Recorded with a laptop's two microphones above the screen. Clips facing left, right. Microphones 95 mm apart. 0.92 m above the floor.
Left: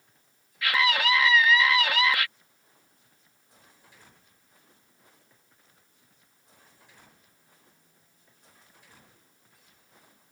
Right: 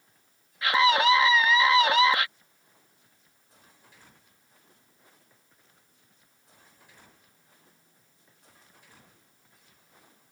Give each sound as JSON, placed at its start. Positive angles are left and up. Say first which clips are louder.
{"t": 0.6, "sound": "a scream", "louder": "right 4 dB", "side_deg": -30}